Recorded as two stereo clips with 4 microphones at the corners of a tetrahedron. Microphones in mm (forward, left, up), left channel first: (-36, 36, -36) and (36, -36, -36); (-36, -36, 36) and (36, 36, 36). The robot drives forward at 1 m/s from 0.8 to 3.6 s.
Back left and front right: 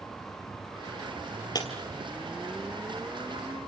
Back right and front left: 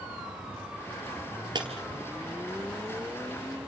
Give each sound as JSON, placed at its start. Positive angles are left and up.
{"t": 1.6, "sound": "breaking glass", "azimuth_deg": 85, "distance_m": 3.5}